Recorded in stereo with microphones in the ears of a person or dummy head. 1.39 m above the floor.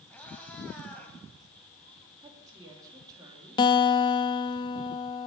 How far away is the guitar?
About 0.6 m.